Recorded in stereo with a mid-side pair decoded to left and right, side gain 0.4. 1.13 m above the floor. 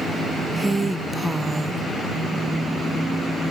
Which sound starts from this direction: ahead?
A woman speaking, at 0.6 s.